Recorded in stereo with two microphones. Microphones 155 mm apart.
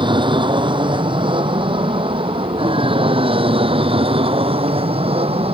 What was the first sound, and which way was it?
An aircraft, 30° right (ahead or behind).